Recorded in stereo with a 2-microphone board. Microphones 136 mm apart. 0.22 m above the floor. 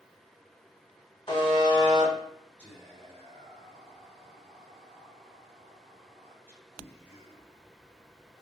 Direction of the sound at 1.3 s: 35° left (ahead or behind).